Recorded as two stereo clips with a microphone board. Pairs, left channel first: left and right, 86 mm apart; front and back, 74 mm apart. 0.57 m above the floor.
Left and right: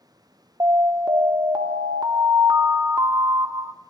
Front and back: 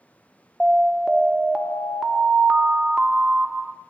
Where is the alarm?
95° right, 0.7 m.